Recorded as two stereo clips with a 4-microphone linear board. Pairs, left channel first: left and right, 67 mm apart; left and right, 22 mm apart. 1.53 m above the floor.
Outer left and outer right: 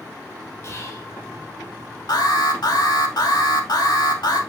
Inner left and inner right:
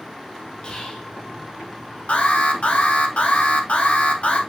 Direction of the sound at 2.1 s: 85° left.